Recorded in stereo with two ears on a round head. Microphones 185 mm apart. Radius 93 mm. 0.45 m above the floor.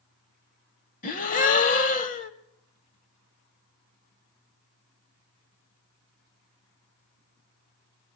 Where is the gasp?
40° left (ahead or behind), 1.0 m.